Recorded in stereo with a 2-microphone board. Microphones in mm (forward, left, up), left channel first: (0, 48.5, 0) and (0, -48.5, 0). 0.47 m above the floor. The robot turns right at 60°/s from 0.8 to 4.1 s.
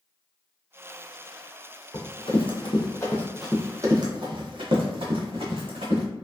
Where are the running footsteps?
40° left (ahead or behind), 1.1 m; by 6.0 s 75° right (ahead or behind), 1.7 m.